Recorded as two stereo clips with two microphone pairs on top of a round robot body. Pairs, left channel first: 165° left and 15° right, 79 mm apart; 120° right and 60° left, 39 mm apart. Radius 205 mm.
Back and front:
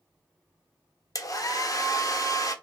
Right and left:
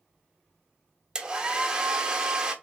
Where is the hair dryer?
130° left, 1.3 m.